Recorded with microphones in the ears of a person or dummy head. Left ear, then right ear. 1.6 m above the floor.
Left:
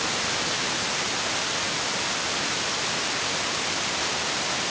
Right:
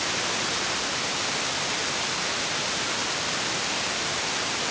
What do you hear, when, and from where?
Only background noise.